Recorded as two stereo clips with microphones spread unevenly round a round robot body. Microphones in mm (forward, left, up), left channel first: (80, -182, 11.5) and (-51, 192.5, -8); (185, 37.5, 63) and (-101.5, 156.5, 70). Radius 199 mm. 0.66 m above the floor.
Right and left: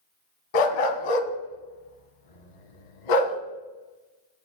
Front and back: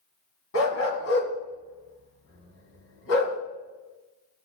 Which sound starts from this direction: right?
A dog barking, at 0.5 s.